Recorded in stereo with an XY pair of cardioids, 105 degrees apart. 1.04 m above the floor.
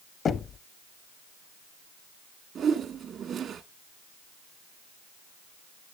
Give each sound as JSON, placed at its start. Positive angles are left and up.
{"t": 0.2, "sound": "knocking", "azimuth_deg": 45, "distance_m": 0.6}
{"t": 2.5, "sound": "a whoosh", "azimuth_deg": -55, "distance_m": 1.1}